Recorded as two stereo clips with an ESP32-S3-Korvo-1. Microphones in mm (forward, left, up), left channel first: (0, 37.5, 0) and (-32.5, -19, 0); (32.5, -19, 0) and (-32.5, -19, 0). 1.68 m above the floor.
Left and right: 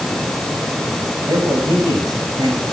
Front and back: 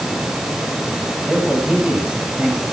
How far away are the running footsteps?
I don't hear running footsteps.